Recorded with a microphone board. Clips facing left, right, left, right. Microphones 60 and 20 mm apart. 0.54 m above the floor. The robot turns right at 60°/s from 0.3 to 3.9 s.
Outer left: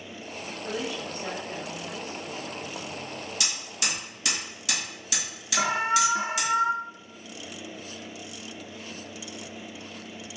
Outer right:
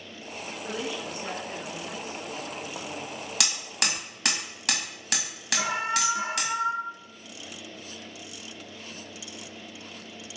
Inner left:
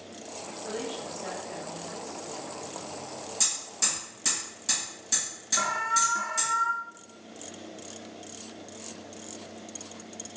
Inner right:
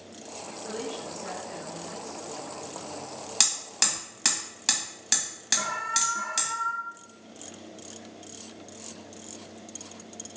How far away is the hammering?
About 1.5 m.